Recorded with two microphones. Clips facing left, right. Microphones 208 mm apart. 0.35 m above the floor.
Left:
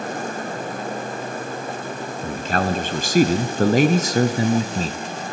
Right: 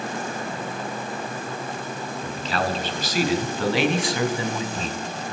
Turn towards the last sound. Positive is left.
turn(degrees=35)  # may be behind; listen again after turning